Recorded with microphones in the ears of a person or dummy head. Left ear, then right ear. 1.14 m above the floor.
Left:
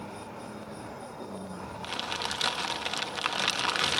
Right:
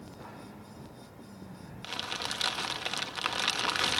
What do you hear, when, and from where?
1.8 s crumpling: 5° left (ahead or behind)